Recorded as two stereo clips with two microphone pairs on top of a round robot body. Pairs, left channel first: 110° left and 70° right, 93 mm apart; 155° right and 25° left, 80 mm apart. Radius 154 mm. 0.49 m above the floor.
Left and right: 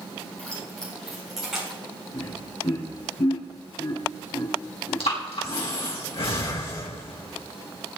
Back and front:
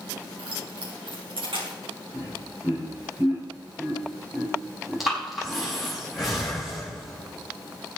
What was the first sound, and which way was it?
Keys jangling, 35° left.